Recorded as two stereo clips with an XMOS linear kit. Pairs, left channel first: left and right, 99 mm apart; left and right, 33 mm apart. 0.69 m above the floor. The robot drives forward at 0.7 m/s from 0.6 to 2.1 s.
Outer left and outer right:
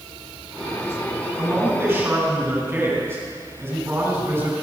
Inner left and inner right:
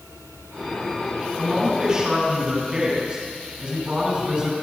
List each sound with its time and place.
1.4 s a man speaking: 25° right (ahead or behind), 4.5 m; by 4.5 s 20° right (ahead or behind), 5 m